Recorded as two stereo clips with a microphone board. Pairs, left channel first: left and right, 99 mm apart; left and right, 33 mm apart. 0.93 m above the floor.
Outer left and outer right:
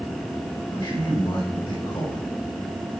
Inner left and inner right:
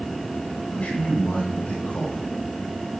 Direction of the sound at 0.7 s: 55° left (ahead or behind).